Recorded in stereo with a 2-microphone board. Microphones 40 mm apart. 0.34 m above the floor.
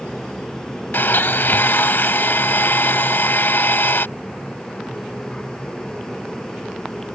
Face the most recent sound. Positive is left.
turn(degrees=65)  # may be behind; listen again after turning